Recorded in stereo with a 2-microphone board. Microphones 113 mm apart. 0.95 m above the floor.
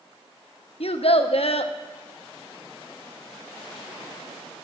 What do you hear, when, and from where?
0.8 s a child speaking: 65° left (ahead or behind), 0.7 m